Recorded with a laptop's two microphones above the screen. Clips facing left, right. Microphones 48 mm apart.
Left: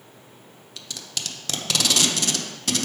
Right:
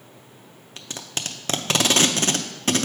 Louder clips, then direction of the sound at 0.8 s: Right 3 dB; 35° right (ahead or behind).